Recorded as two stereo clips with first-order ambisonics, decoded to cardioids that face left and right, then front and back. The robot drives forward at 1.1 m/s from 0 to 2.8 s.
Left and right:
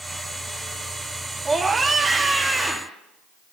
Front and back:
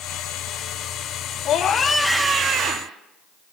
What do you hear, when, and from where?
1.4 s a scream: 15° right, 1.0 m; by 3.0 s 170° right, 1.1 m